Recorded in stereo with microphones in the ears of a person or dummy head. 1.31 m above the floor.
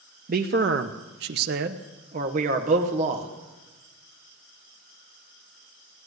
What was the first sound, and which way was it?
A man speaking, 45° right (ahead or behind).